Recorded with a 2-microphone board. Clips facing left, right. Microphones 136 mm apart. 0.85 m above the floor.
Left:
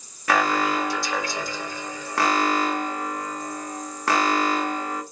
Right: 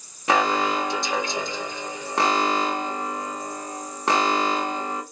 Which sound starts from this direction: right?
An alarm, at 0.3 s.